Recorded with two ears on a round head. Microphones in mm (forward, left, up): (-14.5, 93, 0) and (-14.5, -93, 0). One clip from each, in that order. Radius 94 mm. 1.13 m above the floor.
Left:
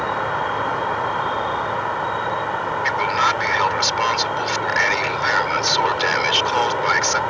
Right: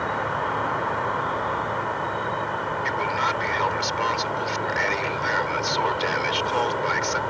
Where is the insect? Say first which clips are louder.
Left 4 dB; 30° left (ahead or behind).